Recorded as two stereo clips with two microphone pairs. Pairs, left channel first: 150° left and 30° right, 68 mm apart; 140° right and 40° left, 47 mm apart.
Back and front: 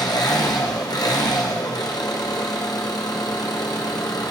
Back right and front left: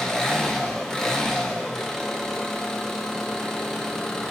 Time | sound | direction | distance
0.0 | an engine running | 140° left | 0.8 m